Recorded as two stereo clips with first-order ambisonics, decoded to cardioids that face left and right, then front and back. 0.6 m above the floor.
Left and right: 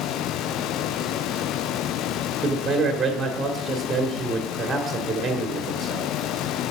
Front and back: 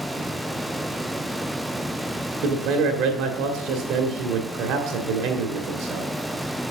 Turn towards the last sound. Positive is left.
turn(degrees=-165)